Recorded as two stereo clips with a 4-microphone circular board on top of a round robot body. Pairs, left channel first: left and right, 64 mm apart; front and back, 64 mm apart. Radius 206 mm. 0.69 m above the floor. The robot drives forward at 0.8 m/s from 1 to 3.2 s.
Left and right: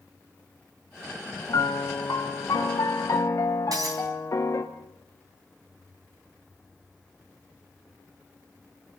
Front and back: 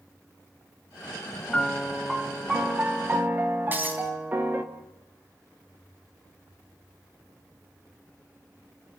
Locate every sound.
1.5 s a piano: 80° left, 1.8 m; by 4.6 s 125° left, 2 m
3.7 s breaking glass: 115° right, 4 m